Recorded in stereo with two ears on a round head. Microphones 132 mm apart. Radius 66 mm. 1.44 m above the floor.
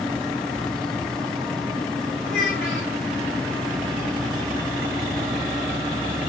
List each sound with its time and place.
2.2 s a child speaking: 65° left (ahead or behind), 6.5 m